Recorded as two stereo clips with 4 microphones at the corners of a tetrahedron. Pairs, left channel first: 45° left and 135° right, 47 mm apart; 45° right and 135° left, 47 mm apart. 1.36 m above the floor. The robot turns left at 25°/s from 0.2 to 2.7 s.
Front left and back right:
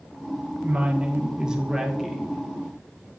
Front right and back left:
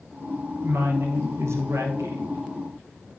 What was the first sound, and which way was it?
A woman speaking, 175° left.